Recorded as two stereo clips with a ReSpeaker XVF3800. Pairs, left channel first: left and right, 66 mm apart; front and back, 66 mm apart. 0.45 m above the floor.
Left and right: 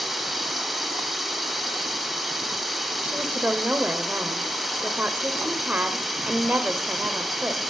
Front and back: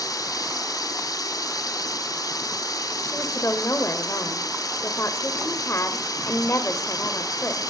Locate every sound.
0.0 s running water: 5° right, 1.5 m
3.0 s a woman speaking: 35° right, 1.4 m